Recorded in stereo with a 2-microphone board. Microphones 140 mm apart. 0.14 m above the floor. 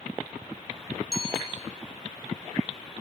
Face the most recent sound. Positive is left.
turn(degrees=5)  # may be behind; listen again after turning